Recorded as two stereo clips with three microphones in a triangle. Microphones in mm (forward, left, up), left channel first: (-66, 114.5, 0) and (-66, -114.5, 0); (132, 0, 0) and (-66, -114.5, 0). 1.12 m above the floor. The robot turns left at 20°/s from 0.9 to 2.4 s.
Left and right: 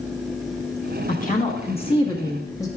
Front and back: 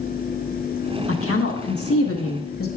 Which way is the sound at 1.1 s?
40° left.